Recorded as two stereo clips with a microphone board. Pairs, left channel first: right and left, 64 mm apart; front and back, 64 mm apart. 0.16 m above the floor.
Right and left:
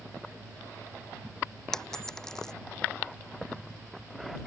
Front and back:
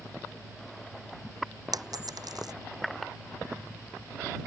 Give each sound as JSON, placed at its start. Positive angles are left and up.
{"t": 1.7, "sound": "a dropped coin", "azimuth_deg": -170}